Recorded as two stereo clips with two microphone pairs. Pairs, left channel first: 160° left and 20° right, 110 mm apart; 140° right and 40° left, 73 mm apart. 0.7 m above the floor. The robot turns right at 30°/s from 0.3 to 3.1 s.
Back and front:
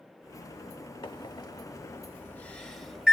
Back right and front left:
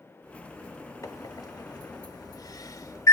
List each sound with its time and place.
1.0 s a microwave: 165° right, 0.7 m; by 3.1 s 105° right, 0.7 m